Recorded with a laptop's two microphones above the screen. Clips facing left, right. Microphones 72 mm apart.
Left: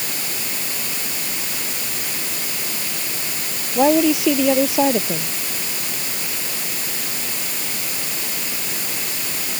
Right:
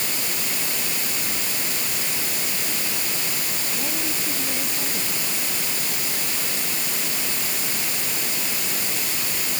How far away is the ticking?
No ticking in this recording.